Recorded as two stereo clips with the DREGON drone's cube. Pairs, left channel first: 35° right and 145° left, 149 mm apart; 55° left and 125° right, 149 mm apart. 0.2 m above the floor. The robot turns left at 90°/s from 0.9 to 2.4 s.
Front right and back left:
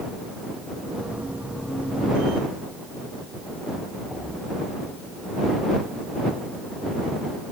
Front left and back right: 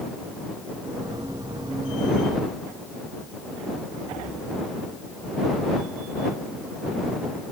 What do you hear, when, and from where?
Only background noise.